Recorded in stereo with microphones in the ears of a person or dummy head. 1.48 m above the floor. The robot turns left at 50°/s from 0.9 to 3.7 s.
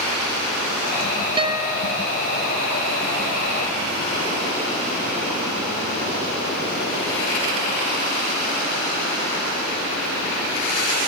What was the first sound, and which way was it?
A guitar, 155° right.